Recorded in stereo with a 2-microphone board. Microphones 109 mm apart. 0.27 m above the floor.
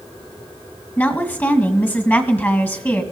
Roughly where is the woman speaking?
Centre.